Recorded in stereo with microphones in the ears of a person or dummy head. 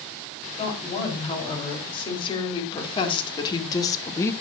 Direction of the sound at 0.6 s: 30° left (ahead or behind).